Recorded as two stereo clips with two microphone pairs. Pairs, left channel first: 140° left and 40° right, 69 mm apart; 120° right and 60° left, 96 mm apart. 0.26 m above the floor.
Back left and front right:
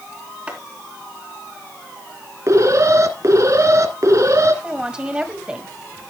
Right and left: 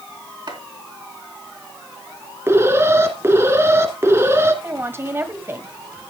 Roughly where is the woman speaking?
Ahead left.